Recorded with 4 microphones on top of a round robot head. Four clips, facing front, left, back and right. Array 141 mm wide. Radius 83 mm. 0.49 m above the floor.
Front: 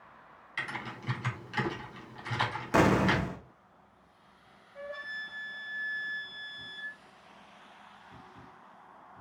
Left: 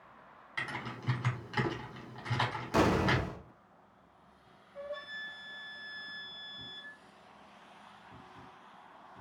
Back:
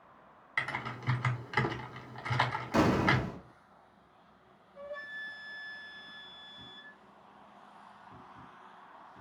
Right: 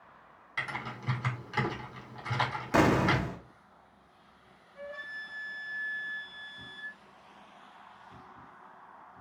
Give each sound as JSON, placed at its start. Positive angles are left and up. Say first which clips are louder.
{"t": 0.6, "sound": "typing on a keyboard", "louder": "right 2 dB, back 2 dB", "azimuth_deg": 180, "distance_m": 1.4}
{"t": 2.7, "sound": "an explosion", "louder": "right 3 dB, front 3 dB", "azimuth_deg": -45, "distance_m": 0.8}
{"t": 4.8, "sound": "a flute", "louder": "left 1 dB, front 2 dB", "azimuth_deg": 40, "distance_m": 1.6}